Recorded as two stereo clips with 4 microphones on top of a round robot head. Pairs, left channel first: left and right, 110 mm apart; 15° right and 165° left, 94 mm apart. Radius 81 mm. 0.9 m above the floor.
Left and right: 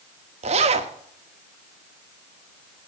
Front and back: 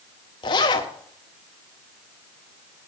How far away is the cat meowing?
I don't hear a cat meowing.